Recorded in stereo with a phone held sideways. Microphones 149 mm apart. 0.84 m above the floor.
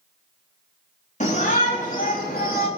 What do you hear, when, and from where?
1.2 s a shout: 50° left (ahead or behind), 3.5 m; by 2.7 s 70° left (ahead or behind), 3.5 m